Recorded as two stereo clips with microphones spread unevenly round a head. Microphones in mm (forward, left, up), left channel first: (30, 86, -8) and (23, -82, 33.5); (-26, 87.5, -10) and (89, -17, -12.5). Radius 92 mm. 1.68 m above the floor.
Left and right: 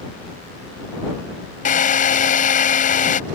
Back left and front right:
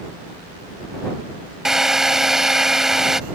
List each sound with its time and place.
1.6 s a drill: 45° left